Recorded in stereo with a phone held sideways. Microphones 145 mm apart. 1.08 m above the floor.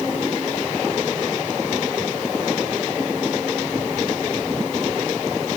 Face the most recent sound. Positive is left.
No sound to turn to.